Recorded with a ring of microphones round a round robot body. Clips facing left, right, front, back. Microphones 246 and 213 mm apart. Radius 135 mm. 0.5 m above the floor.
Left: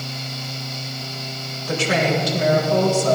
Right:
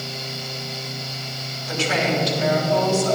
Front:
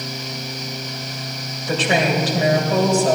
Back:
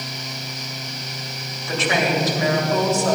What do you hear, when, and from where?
1.7 s a woman speaking: 55° left, 3 m